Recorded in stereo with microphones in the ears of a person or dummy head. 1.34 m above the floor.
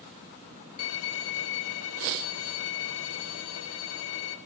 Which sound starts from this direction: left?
A violin, at 0.8 s.